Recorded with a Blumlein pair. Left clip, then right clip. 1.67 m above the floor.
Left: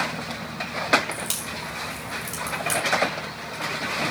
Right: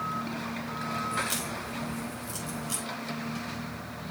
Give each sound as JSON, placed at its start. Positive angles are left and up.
{"t": 1.1, "sound": "a crack", "azimuth_deg": 30, "distance_m": 5.0}